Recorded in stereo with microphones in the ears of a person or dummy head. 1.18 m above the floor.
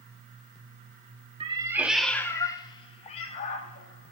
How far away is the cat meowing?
About 0.9 m.